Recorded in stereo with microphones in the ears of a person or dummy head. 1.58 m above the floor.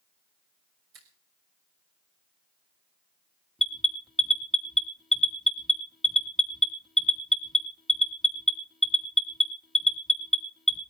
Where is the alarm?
Centre (ahead or behind), 2.5 m.